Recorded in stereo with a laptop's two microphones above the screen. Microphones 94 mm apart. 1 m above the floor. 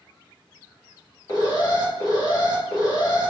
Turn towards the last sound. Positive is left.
turn(degrees=40)  # may be behind; listen again after turning